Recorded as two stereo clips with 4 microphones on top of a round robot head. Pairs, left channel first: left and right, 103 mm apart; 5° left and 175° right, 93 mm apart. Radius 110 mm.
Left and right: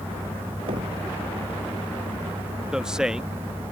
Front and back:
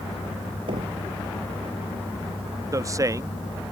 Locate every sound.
0.7 s knocking: 135° right
2.7 s a man speaking: 170° right